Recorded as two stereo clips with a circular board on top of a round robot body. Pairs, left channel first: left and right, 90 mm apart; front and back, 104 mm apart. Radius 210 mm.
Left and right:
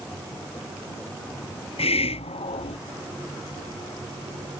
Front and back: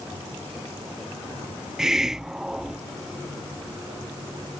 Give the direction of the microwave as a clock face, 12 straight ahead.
I don't hear a microwave.